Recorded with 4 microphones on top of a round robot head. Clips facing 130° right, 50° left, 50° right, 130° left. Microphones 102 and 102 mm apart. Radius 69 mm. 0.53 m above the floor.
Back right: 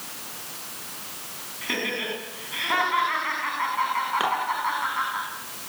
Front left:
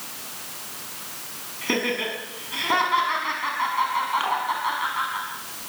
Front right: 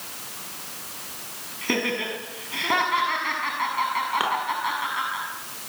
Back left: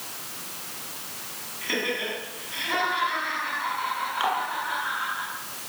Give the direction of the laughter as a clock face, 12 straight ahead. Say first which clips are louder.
Front left 5 dB, front right 3 dB; 12 o'clock.